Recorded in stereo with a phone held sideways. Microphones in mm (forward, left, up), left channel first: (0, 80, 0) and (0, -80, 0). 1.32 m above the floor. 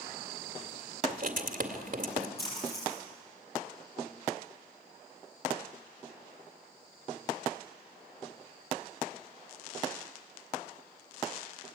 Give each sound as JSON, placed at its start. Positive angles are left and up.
{"t": 1.1, "sound": "writing", "side_deg": -60, "distance_m": 2.0}
{"t": 2.4, "sound": "a splash", "side_deg": 80, "distance_m": 9.0}